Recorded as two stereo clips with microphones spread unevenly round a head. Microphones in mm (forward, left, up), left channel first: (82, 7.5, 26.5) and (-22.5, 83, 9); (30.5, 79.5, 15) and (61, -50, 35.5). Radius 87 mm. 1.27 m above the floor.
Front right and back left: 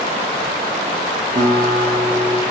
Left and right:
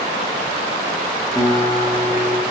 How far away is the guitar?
About 0.6 m.